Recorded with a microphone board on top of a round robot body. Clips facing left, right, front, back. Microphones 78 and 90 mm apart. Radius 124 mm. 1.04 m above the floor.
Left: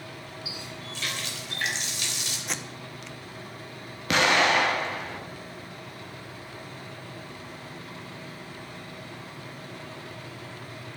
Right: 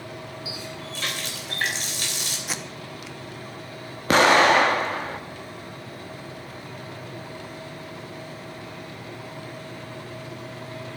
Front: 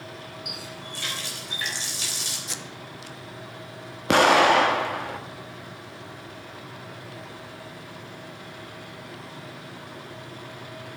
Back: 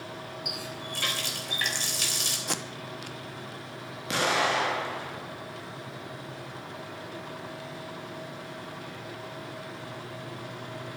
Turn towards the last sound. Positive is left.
turn(degrees=-40)